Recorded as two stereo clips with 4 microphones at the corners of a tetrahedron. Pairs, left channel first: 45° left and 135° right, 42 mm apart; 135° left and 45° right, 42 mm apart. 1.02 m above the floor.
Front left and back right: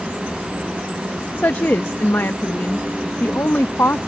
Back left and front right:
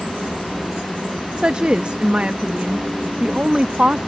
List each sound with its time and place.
1.4 s a woman speaking: 15° left